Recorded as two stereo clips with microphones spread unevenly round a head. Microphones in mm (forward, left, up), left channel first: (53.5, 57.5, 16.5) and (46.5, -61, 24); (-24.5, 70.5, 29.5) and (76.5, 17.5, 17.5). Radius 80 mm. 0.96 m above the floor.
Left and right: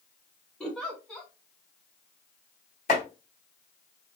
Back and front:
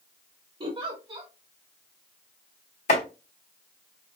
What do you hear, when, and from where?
0.6 s a giggle: 5° left, 1.7 m
2.9 s chopping: 135° left, 2.0 m